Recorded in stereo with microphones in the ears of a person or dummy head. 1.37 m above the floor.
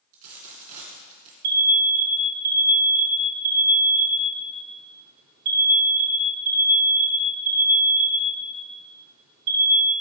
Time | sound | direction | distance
0.1 | a dropped coin | 40° right (ahead or behind) | 2 m
1.4 | an alarm | 50° right (ahead or behind) | 2.5 m